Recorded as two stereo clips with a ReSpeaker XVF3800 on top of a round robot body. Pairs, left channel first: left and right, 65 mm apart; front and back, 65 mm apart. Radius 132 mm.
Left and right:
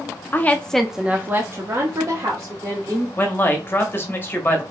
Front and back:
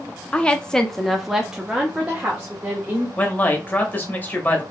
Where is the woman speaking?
60° left, 0.9 m; by 3.1 s 110° right, 2.0 m.